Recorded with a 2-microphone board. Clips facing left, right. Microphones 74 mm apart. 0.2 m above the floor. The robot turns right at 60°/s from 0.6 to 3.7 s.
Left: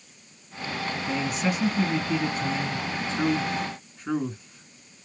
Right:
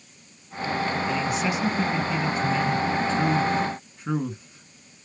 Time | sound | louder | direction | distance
1.1 | a man speaking | right 2 dB | 25° left (ahead or behind) | 2.5 m